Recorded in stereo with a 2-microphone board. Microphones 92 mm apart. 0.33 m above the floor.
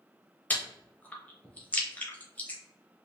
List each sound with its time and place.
0.5 s chewing: 15° left (ahead or behind), 0.8 m